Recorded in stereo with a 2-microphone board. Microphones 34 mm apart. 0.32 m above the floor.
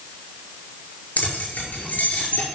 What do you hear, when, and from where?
1.2 s keys jangling: 50° left (ahead or behind), 4.5 m